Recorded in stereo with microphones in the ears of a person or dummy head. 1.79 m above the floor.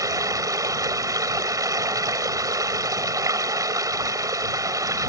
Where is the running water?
20° right (ahead or behind).